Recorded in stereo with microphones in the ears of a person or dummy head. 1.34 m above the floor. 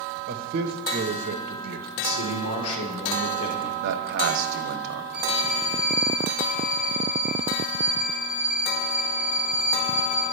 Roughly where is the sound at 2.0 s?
Left.